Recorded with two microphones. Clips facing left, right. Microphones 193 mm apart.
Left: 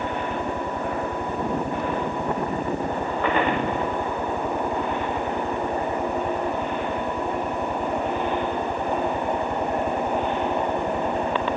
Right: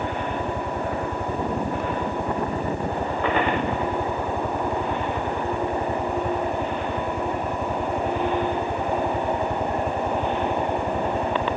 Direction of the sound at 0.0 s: 50° right (ahead or behind).